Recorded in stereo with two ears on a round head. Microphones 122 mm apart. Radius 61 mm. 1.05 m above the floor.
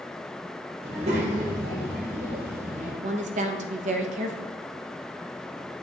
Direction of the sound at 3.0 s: 55° right (ahead or behind).